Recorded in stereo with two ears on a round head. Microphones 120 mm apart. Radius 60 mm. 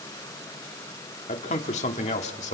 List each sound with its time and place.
1.3 s a man speaking: 50° left (ahead or behind), 1.8 m